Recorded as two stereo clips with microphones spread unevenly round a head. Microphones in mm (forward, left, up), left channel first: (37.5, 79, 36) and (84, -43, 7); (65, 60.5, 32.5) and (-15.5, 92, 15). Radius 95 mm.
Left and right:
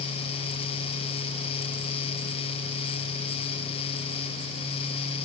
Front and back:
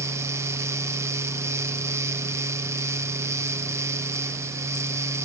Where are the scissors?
I don't hear scissors.